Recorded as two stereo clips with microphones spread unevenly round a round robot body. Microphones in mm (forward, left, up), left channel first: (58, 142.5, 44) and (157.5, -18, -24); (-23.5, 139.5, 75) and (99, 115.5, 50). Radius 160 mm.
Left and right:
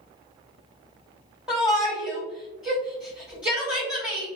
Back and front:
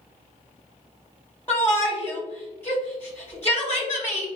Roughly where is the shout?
Right.